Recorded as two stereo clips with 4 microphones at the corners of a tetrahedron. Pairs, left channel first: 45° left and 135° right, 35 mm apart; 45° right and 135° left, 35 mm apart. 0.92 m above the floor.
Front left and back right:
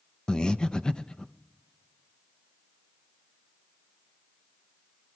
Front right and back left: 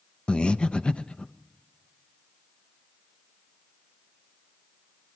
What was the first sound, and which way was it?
Breathing, 10° right.